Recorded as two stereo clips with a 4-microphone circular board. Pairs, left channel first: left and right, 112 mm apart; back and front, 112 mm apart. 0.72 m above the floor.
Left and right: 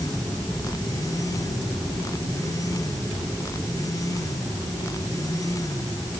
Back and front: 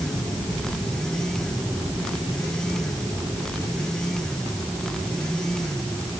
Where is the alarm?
No alarm in this recording.